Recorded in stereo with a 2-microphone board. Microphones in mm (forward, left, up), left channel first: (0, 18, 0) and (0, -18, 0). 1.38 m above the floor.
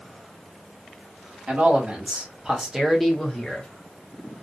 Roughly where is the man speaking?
Right.